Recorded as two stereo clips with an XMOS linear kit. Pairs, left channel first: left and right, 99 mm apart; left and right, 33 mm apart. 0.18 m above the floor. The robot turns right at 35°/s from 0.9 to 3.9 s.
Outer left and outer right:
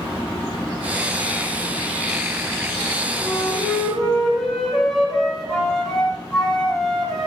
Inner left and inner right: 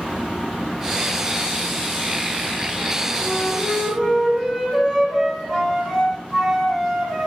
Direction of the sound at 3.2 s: 30° left (ahead or behind).